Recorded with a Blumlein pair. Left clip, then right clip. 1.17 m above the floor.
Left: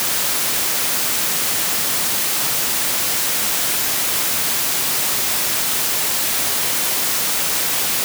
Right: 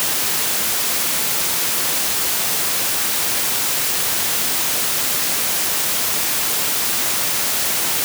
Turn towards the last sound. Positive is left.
No sound to turn to.